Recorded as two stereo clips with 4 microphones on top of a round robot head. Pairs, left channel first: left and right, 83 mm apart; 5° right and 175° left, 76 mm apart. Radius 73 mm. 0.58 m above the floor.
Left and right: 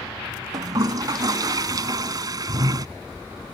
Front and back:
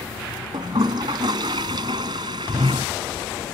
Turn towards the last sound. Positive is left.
turn(degrees=-135)